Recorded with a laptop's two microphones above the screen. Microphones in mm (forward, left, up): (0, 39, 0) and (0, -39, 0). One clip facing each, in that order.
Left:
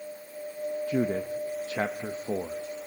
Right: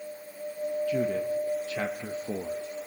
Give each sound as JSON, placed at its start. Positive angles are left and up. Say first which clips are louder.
{"t": 0.9, "sound": "a man speaking", "louder": "left 1 dB", "side_deg": 30, "distance_m": 1.1}